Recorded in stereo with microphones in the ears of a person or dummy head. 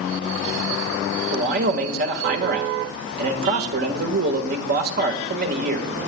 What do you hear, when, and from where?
1.3 s a man speaking: 55° right (ahead or behind), 1.6 m